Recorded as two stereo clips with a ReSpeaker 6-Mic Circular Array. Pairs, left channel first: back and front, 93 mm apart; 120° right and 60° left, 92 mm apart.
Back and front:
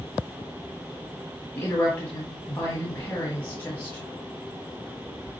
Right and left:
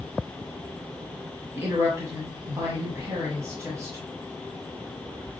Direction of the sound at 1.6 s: 110° left.